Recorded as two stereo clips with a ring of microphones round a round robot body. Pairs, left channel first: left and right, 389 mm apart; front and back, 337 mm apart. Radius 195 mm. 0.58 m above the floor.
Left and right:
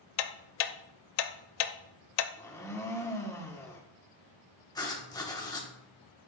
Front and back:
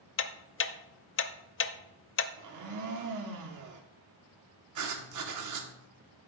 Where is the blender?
170° left, 1.2 m.